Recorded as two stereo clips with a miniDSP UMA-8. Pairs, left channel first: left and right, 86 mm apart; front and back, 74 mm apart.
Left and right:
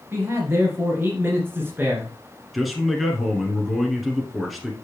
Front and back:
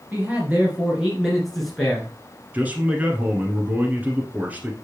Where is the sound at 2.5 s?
Straight behind, 1.2 m.